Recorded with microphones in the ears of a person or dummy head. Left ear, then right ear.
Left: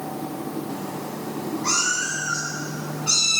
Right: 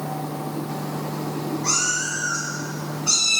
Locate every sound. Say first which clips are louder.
1.6 s a cat meowing: left 1 dB; centre (ahead or behind), 1.9 m; by 3.4 s 5° left (ahead or behind), 3.5 m